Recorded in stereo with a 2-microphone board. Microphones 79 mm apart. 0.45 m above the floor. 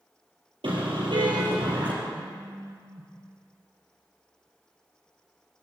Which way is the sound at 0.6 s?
90° right.